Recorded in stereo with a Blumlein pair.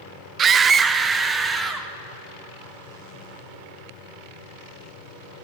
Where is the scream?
25° right, 0.7 m; by 1.9 s 15° right, 3 m.